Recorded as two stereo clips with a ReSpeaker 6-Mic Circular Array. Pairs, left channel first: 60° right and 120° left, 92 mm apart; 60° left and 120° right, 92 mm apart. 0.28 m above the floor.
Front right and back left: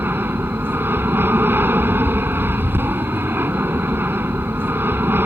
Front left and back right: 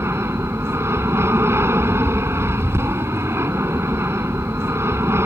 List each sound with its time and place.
0.0 s an aircraft: 175° right